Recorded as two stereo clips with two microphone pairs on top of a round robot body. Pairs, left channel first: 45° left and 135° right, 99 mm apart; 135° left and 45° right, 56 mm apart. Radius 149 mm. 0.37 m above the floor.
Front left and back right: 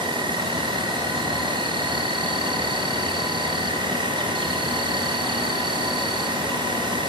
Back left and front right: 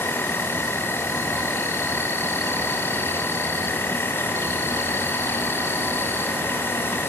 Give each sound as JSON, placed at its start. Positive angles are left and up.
{"t": 0.0, "sound": "an insect", "azimuth_deg": -175, "distance_m": 2.5}